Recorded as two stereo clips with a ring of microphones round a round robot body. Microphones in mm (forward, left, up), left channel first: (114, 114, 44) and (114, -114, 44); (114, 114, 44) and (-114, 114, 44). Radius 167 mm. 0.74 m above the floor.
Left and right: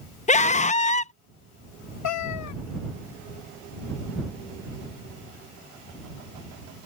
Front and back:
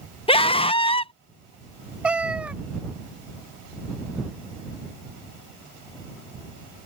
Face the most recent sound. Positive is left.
turn(degrees=95)